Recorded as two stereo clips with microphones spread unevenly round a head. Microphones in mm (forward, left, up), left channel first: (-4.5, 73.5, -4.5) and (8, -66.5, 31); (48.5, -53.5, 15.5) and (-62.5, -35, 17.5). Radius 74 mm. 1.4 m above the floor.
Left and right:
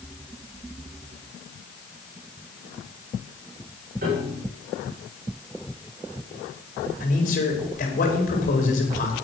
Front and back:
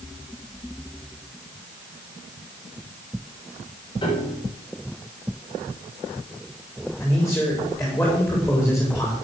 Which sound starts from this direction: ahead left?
A man speaking, at 7.0 s.